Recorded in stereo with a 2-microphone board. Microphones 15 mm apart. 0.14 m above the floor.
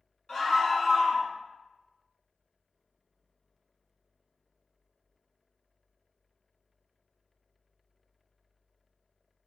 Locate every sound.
0.3 s a scream: 30° left (ahead or behind), 1.1 m